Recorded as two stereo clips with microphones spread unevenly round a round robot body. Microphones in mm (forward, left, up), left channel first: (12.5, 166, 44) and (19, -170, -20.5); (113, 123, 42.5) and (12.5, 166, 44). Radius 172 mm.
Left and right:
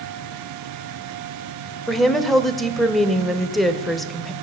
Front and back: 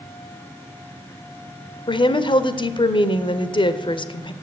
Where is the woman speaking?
10° right, 1.1 m.